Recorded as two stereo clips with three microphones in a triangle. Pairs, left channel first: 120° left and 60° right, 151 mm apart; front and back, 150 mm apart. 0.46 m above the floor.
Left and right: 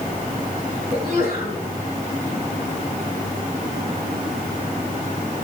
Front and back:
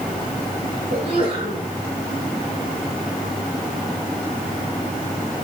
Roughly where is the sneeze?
Behind left.